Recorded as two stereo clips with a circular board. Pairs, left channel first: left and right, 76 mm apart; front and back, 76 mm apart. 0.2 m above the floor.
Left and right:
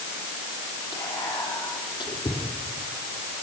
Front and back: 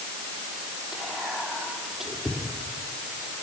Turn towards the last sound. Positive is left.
turn(degrees=95)